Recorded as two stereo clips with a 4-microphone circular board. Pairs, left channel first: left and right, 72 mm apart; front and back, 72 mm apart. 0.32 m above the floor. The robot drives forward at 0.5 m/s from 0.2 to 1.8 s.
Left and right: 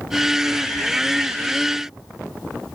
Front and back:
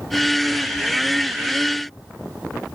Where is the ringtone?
No ringtone in this recording.